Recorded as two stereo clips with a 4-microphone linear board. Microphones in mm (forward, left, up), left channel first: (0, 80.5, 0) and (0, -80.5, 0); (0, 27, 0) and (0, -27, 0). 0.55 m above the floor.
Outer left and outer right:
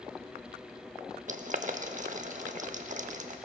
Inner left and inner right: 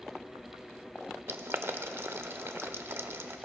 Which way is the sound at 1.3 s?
50° right (ahead or behind).